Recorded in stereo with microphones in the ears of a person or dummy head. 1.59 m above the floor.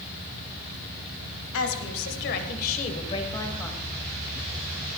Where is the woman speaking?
80° left, 1.8 m; by 3.8 s 5° left (ahead or behind), 1.6 m.